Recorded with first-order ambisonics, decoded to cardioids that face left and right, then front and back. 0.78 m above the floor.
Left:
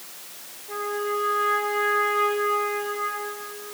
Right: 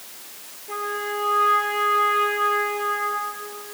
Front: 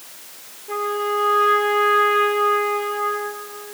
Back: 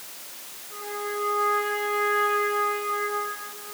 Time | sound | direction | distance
0.7 | a trumpet | 15° right | 4 m